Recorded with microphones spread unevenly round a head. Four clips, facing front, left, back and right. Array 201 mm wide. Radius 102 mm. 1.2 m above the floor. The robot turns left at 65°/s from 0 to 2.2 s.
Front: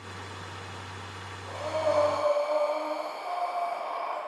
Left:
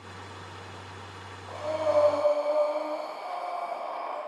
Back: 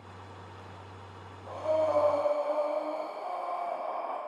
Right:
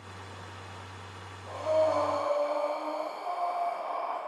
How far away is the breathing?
About 5.5 m.